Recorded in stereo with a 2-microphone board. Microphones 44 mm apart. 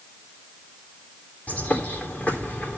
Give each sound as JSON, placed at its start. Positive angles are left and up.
{"t": 1.5, "sound": "a bird", "side_deg": 35, "distance_m": 3.5}